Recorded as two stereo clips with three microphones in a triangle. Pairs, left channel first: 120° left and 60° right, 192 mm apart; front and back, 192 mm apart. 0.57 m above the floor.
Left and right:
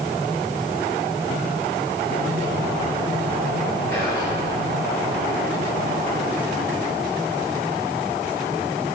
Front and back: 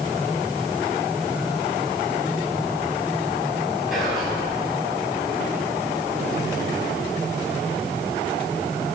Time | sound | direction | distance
3.9 | whispering | 90° right | 5.5 m